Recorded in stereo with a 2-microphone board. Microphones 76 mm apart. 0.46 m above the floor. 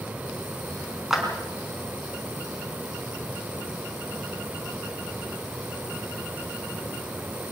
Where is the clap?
5° right (ahead or behind), 4 m.